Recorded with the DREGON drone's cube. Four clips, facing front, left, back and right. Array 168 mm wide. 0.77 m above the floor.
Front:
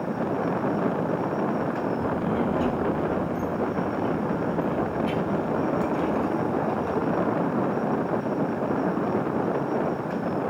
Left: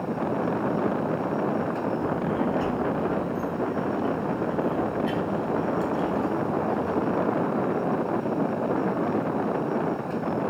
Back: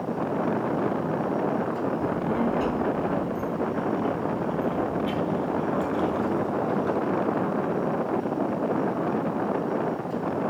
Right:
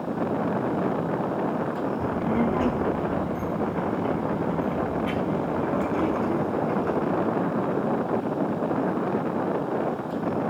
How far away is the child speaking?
About 5 m.